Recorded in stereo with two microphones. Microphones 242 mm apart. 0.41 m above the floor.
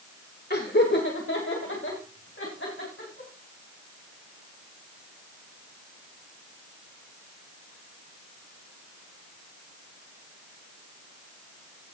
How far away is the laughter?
About 1.8 m.